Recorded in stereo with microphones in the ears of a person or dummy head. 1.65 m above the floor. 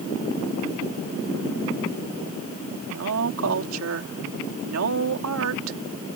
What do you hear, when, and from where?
2.9 s a woman speaking: 85° right